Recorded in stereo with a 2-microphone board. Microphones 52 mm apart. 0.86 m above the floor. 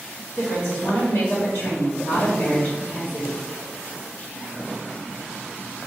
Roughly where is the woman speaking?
Left.